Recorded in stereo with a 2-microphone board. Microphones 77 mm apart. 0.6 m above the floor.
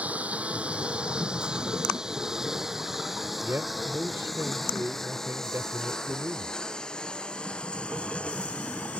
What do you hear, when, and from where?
0.0 s a lawn mower: 15° right (ahead or behind); by 9.0 s 15° left (ahead or behind)
3.4 s a man speaking: 30° right (ahead or behind)